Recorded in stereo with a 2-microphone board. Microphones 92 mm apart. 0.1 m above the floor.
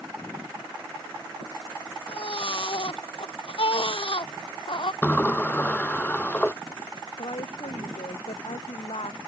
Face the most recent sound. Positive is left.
turn(degrees=80)